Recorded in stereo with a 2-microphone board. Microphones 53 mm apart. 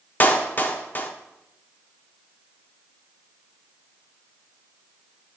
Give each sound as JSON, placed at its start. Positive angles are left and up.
{"t": 0.2, "sound": "a clap", "side_deg": 35, "distance_m": 1.2}